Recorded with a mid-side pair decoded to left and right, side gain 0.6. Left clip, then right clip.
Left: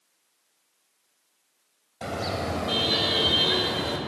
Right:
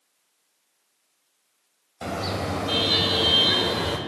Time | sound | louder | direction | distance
2.0 | a car horn | right 1 dB | 5° right | 4.5 m